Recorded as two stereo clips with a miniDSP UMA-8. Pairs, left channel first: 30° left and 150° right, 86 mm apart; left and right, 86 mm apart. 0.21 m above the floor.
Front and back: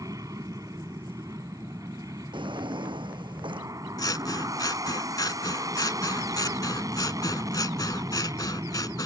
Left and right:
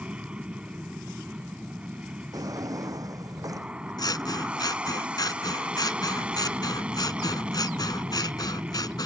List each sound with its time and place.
0.0 s an aircraft: 160° right
2.3 s a drawer: 135° right
4.0 s scissors: 65° left